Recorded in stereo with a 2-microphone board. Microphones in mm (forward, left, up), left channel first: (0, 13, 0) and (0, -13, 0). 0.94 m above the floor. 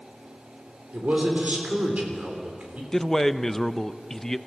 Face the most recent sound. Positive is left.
turn(degrees=15)  # may be behind; listen again after turning